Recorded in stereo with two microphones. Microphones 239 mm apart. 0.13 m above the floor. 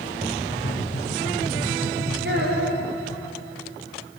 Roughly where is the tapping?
Left.